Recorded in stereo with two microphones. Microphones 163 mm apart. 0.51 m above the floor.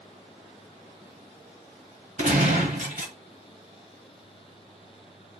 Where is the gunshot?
60° right (ahead or behind), 1.5 m.